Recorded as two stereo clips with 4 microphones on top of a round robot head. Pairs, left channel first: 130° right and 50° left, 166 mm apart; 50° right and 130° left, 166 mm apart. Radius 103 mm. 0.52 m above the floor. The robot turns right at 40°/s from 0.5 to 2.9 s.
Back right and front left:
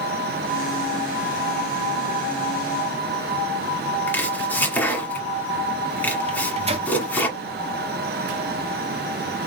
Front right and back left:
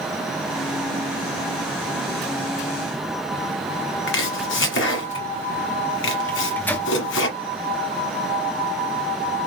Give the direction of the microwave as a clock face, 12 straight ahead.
11 o'clock.